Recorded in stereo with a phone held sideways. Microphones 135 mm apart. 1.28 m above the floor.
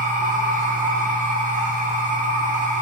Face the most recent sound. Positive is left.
turn(degrees=-85)